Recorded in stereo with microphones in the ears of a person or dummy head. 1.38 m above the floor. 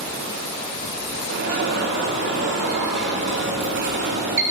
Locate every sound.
1.3 s an alarm: 50° right (ahead or behind), 0.7 m